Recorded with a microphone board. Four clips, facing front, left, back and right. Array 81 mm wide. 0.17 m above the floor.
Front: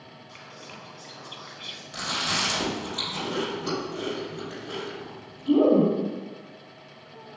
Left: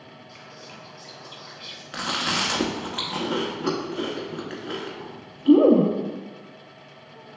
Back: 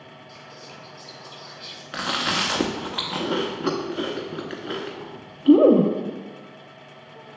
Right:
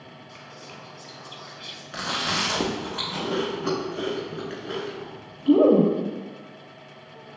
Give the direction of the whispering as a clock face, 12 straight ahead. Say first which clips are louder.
Right 1 dB, front 1 dB; 12 o'clock.